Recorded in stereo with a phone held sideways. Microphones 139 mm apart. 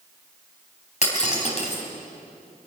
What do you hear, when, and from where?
1.0 s breaking glass: 50° left (ahead or behind), 4 m